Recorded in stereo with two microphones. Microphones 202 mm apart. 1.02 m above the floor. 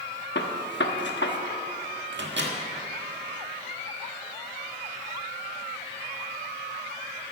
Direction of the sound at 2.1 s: 70° right (ahead or behind).